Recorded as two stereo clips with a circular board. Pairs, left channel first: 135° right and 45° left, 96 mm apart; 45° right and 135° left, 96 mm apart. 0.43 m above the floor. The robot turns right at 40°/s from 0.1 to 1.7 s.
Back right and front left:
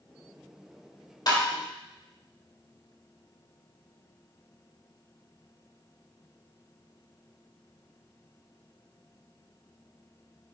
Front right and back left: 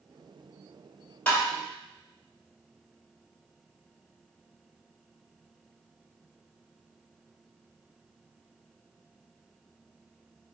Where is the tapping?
110° right, 2 m; by 1.4 s 105° right, 2 m.